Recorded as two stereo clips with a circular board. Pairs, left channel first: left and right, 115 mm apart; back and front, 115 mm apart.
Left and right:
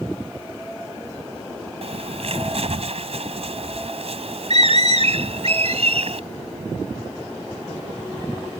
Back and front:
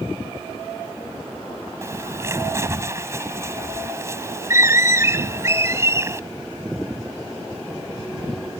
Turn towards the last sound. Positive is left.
turn(degrees=-65)